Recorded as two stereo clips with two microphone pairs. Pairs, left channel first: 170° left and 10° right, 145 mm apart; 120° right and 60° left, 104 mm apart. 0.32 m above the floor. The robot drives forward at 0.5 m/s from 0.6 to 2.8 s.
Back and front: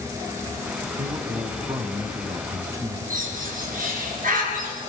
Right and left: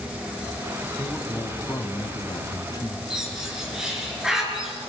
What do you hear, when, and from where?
1.0 s a man speaking: 50° right, 2 m; by 3.0 s 75° right, 1.8 m
3.1 s a bird: 25° right, 4.5 m